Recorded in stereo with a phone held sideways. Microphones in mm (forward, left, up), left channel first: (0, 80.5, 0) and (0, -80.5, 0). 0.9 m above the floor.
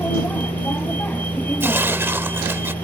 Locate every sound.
0.0 s a vehicle: 10° left (ahead or behind)
1.6 s tearing paper: 15° right (ahead or behind)